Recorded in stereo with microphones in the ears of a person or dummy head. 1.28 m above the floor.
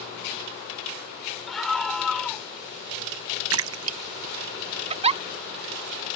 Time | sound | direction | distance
1.5 | a scream | 5° left (ahead or behind) | ?
3.5 | a splash | 70° right (ahead or behind) | ?
4.9 | a giggle | 30° right (ahead or behind) | ?